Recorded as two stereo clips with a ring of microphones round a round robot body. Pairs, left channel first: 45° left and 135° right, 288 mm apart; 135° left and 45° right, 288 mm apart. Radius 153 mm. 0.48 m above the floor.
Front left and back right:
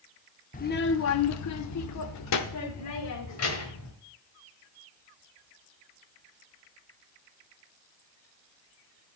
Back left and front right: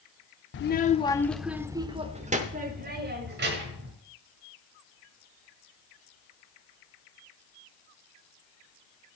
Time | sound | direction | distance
0.5 | a child speaking | 100° left | 0.7 m